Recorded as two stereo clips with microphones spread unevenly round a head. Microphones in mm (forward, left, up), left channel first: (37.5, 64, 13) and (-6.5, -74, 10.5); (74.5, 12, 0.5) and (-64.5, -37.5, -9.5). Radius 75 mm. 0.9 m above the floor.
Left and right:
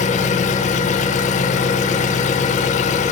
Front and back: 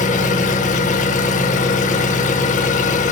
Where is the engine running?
40° left, 0.8 m.